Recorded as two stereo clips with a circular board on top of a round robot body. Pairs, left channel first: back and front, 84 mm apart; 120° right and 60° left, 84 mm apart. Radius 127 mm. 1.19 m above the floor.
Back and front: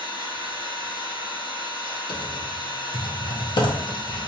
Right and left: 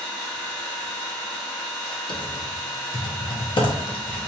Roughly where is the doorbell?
I don't hear a doorbell.